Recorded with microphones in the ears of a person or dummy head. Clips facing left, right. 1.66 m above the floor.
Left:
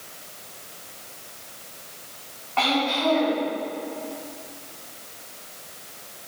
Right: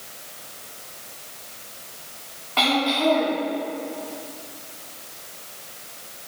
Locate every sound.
2.6 s throat clearing: 45° right (ahead or behind), 2.5 m